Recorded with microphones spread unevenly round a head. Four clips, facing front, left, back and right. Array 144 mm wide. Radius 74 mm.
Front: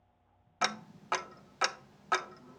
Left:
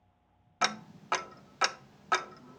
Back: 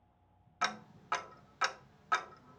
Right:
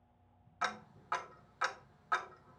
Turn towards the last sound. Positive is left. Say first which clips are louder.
# left 6 dB, front 3 dB
turn(degrees=65)